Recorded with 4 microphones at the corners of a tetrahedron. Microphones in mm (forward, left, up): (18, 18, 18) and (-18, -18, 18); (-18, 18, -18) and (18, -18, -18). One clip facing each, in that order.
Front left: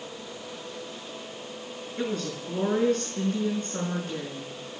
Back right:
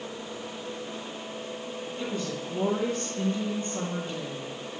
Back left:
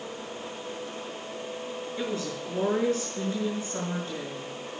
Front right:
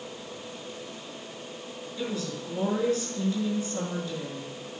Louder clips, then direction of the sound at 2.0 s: Front left 3 dB, even; 80° left.